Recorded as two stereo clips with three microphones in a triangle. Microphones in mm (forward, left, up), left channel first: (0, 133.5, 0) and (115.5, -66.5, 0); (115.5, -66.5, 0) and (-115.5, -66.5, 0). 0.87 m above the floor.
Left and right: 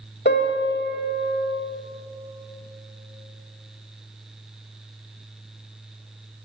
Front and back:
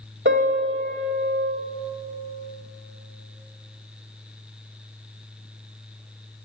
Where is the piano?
155° left, 1.0 m.